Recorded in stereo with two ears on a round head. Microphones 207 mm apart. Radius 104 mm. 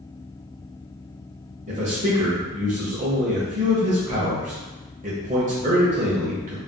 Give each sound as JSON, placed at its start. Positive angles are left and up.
{"t": 1.7, "sound": "a man speaking", "side_deg": -35, "distance_m": 0.7}